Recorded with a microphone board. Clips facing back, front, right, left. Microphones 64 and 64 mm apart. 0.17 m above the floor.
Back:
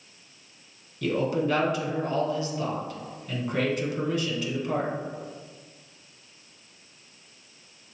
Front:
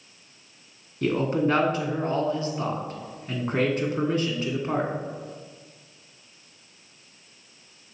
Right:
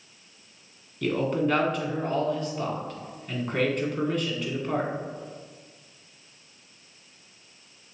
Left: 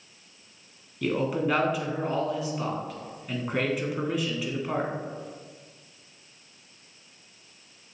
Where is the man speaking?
10° left, 1.2 m.